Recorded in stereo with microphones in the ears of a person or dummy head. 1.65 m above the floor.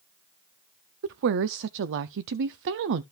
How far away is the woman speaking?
About 0.5 m.